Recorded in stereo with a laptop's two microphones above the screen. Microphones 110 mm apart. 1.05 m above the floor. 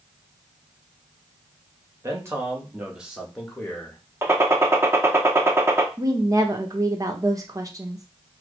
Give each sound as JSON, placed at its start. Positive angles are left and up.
{"t": 2.0, "sound": "a man speaking", "side_deg": -30, "distance_m": 1.5}
{"t": 4.2, "sound": "a gunshot", "side_deg": -25, "distance_m": 0.6}
{"t": 6.0, "sound": "a woman speaking", "side_deg": -30, "distance_m": 0.9}